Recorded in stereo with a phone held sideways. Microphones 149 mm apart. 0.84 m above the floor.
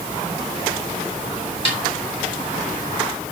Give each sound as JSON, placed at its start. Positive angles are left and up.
{"t": 1.6, "sound": "a snare drum", "side_deg": 40, "distance_m": 3.5}